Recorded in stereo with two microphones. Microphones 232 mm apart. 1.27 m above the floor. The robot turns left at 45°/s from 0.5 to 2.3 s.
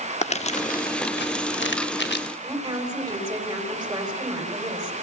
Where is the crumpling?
30° left (ahead or behind), 1.1 m; by 2.3 s 45° left (ahead or behind), 1.1 m.